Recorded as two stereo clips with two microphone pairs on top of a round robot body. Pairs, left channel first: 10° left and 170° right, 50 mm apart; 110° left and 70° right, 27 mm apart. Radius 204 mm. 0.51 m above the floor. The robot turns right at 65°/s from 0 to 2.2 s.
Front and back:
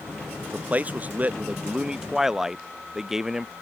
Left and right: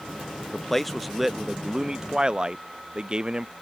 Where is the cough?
No cough in this recording.